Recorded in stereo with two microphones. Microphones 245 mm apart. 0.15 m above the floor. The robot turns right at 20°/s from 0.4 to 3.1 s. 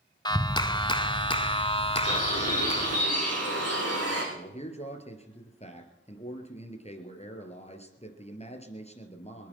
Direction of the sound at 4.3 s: 25° left (ahead or behind).